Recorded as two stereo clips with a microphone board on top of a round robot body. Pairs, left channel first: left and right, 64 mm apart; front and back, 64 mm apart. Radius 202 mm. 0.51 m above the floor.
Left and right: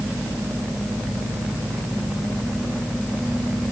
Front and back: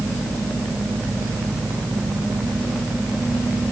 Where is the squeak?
I don't hear a squeak.